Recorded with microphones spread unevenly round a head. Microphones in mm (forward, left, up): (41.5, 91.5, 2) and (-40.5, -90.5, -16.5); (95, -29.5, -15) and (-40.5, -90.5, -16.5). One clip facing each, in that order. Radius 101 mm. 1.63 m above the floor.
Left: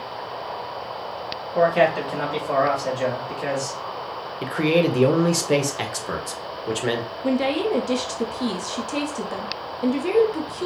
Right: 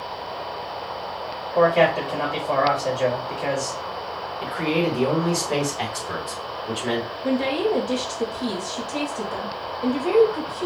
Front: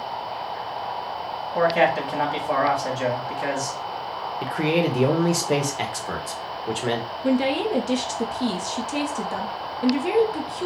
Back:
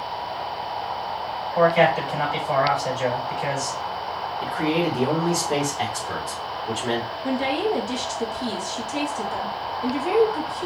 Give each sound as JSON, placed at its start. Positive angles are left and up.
{"t": 1.6, "sound": "a man speaking", "azimuth_deg": -5, "distance_m": 2.5}
{"t": 4.4, "sound": "a man speaking", "azimuth_deg": 55, "distance_m": 1.1}
{"t": 7.2, "sound": "a woman speaking", "azimuth_deg": 20, "distance_m": 1.0}